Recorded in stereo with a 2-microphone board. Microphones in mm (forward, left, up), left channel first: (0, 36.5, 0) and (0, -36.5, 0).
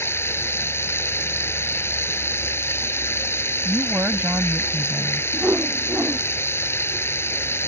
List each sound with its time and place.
0.0 s running water: 35° left (ahead or behind)
3.6 s a woman speaking: 25° right (ahead or behind)
5.3 s a whoosh: 30° right (ahead or behind)